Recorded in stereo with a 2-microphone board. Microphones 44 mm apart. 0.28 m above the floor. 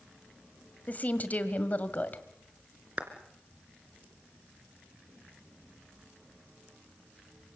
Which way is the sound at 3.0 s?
30° right (ahead or behind).